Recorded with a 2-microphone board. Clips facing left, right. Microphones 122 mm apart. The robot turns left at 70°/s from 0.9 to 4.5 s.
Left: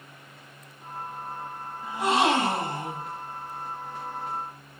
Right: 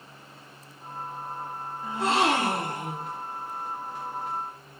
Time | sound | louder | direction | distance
1.8 | a gasp | left 1 dB | 10° left (ahead or behind) | 1.5 m